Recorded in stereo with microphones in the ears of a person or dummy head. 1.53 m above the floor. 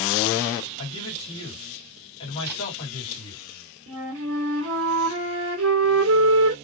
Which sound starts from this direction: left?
A man speaking, at 0.8 s.